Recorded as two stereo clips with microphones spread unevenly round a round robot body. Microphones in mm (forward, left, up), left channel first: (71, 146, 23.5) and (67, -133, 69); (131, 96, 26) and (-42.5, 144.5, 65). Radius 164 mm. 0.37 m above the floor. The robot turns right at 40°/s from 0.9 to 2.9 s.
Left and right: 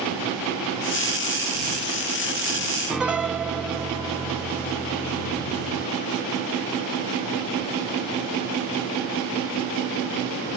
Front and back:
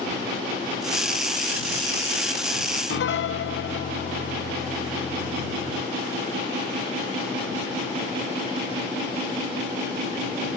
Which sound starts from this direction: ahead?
A piano, at 2.9 s.